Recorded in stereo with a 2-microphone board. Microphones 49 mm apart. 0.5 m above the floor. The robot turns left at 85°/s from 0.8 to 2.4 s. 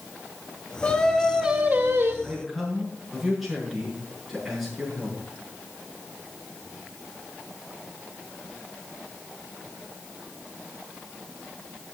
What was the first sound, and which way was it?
Singing, 25° left.